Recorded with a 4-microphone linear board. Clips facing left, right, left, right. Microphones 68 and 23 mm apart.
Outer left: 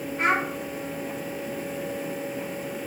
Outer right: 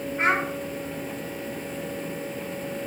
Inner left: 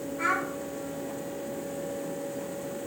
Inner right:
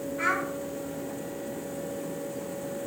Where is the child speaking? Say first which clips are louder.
Even, even; 30° right (ahead or behind), 1.4 m.